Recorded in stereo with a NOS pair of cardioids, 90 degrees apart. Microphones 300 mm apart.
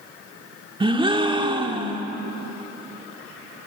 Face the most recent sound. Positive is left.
turn(degrees=-15)